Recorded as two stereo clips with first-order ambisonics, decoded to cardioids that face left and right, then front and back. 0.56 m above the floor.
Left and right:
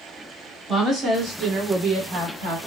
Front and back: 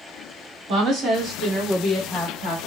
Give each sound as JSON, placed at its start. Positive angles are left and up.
{"t": 0.7, "sound": "a woman speaking", "azimuth_deg": -160, "distance_m": 1.1}